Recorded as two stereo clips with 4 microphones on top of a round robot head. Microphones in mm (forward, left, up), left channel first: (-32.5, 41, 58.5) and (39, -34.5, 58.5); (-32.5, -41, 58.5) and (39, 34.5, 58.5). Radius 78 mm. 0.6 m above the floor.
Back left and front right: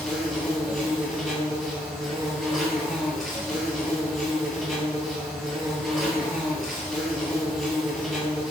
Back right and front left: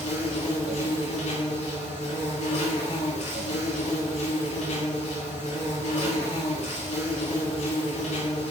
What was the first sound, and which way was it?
An insect, 140° right.